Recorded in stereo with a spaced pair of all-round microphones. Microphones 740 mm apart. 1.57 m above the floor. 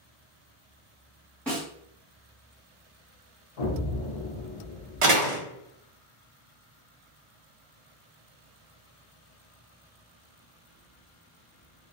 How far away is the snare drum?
About 1.6 m.